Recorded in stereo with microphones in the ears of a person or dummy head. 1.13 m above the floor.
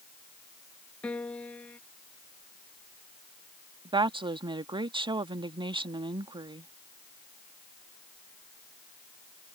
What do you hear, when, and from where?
1.0 s a piano: 10° left (ahead or behind)
3.9 s a woman speaking: 25° right (ahead or behind)